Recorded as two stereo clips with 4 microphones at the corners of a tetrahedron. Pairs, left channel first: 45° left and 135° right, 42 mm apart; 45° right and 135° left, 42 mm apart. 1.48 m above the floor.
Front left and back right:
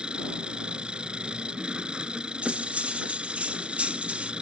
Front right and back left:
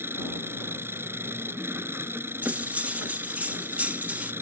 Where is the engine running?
155° left.